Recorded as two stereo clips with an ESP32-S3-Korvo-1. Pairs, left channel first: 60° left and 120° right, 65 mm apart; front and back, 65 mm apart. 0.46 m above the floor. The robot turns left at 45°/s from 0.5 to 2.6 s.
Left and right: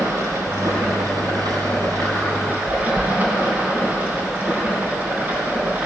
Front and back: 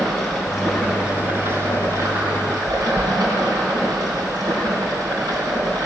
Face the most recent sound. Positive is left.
turn(degrees=180)